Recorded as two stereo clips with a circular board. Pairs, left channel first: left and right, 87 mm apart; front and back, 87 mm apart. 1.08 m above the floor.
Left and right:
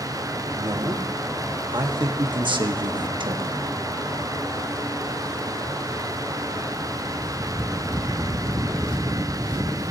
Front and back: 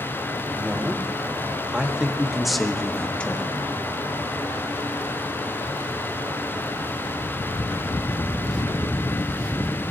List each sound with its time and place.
0.6 s a man speaking: 110° right, 2 m; by 3.6 s 65° right, 1.1 m